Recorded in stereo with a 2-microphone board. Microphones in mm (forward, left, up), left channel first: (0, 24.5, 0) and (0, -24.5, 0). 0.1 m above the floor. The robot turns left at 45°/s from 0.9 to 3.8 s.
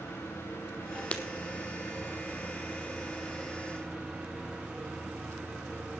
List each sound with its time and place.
0.0 s an engine running: 115° left, 8 m; by 6.0 s 15° right, 8 m
1.1 s breaking glass: 25° left (ahead or behind), 1.1 m; by 1.2 s 30° left (ahead or behind), 1.1 m